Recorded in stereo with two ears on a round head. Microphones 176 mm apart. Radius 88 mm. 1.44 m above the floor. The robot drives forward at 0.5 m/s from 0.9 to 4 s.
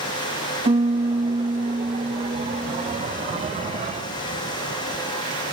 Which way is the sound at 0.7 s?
30° right (ahead or behind).